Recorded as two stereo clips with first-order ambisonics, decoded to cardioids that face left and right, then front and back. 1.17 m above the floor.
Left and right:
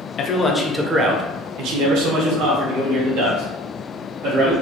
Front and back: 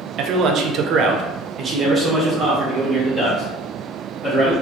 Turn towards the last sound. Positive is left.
turn(degrees=-95)